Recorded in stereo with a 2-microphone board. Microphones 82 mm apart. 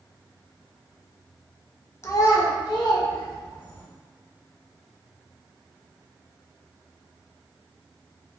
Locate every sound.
2.0 s a child speaking: 35° left (ahead or behind), 0.5 m; by 3.9 s 75° left (ahead or behind), 1.5 m